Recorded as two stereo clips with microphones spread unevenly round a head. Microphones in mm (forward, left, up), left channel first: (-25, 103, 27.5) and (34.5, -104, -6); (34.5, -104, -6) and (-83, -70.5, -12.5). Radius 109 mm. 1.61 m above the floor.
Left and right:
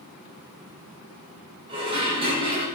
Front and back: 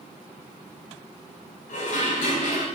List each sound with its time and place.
1.7 s dishes clattering: 5° right, 7.5 m